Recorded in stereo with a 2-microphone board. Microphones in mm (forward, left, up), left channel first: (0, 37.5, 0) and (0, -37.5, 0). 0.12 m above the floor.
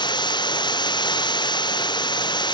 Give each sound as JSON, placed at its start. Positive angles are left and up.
{"t": 0.0, "sound": "running water", "side_deg": 80}